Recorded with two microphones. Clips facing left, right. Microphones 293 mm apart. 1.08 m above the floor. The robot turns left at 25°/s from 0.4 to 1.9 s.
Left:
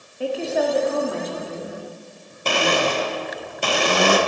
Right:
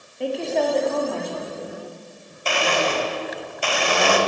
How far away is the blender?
About 1.0 m.